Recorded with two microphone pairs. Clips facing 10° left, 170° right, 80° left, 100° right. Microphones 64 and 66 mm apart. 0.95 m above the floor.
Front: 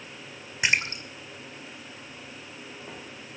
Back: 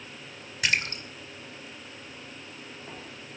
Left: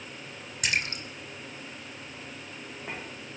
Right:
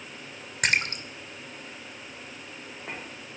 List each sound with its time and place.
0.6 s a splash: 60° right, 2 m